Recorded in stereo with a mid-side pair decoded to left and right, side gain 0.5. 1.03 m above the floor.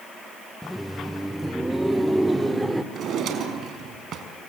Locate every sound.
0.6 s laughter: straight ahead, 0.6 m; by 2.8 s 15° right, 2.5 m
2.9 s a drawer: 60° right, 4.5 m